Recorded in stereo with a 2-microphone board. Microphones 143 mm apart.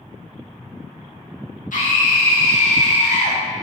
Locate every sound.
1.7 s a scream: 80° left, 1.6 m; by 3.4 s 65° left (ahead or behind), 2.5 m